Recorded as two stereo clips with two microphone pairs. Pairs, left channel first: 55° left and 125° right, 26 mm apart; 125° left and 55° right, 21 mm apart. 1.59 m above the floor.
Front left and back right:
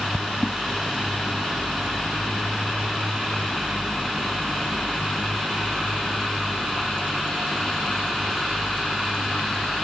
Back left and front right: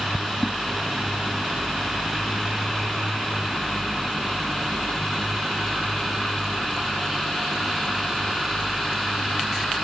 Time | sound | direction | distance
0.4 | a whoosh | 150° left | 0.7 m